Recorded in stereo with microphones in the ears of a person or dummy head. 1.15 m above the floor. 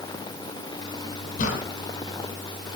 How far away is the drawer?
About 2.5 m.